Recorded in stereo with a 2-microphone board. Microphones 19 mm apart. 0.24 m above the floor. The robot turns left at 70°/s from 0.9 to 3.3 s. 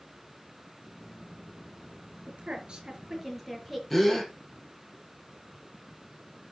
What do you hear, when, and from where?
2.3 s a woman speaking: 70° right (ahead or behind), 5 m; by 3.8 s 10° right (ahead or behind), 5 m
3.9 s a gasp: 5° left (ahead or behind), 4.5 m